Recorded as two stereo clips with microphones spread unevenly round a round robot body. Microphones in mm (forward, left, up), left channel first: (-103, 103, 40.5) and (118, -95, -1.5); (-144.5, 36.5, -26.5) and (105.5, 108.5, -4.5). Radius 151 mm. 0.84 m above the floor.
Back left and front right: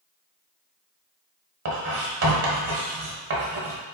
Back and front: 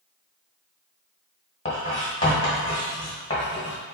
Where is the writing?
90° right, 1.2 m.